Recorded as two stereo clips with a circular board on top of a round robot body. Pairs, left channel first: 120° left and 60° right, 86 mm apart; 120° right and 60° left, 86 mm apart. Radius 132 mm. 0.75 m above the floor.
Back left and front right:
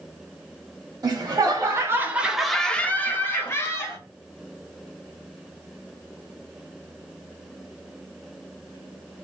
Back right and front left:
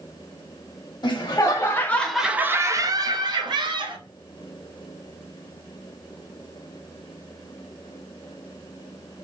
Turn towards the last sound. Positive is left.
turn(degrees=65)